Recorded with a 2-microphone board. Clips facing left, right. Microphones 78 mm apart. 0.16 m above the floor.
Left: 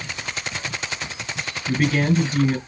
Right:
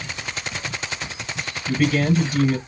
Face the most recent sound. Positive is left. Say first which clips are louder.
# right 1 dB
turn(degrees=30)  # may be behind; listen again after turning